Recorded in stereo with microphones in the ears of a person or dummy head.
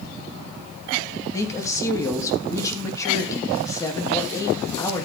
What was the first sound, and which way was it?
A woman speaking, 15° left (ahead or behind).